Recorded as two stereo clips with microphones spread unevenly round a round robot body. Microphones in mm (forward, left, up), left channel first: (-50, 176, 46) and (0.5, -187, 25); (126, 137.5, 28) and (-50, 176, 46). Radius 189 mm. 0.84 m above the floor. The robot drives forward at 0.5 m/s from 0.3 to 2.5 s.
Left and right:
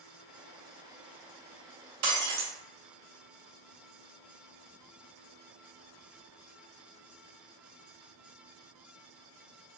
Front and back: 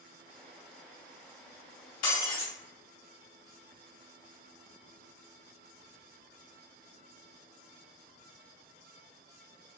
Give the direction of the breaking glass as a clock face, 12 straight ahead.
1 o'clock.